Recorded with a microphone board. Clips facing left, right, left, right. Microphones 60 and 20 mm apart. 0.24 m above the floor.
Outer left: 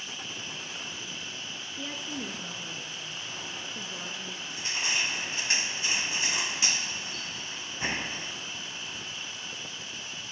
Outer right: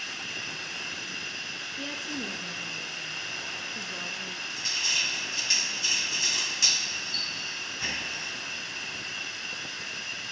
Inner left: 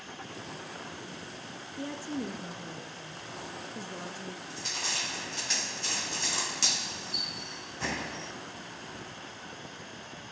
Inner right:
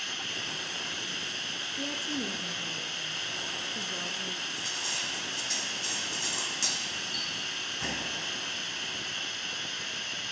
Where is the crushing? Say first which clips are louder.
Outer left 2 dB, even; 25° left (ahead or behind), 1.1 m.